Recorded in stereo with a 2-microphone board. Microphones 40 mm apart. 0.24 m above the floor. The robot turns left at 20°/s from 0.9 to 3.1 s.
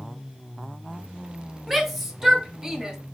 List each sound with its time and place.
1.7 s a shout: centre (ahead or behind), 1.1 m; by 3.0 s 15° right (ahead or behind), 1.1 m